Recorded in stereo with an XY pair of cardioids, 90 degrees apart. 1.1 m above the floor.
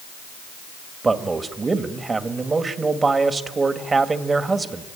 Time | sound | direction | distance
1.0 | a man speaking | 35° right | 2 m